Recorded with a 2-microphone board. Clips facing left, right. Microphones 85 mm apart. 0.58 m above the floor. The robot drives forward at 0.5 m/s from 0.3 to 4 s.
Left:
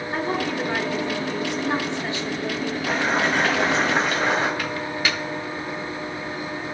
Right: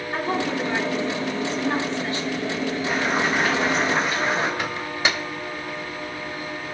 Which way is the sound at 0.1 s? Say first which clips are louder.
Right 1 dB; 15° left (ahead or behind).